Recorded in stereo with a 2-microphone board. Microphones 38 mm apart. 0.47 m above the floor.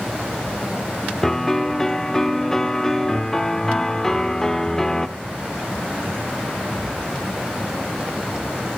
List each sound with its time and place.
1.2 s a piano: 10° left (ahead or behind), 0.6 m